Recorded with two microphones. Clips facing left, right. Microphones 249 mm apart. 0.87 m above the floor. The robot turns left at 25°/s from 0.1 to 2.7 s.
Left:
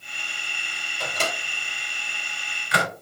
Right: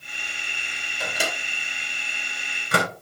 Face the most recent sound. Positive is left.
turn(degrees=-45)  # may be behind; listen again after turning